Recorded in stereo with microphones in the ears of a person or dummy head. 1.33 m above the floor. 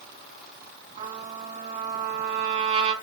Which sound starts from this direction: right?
A trumpet, at 1.0 s.